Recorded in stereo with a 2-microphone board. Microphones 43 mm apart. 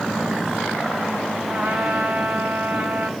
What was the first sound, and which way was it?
A trumpet, 45° right (ahead or behind).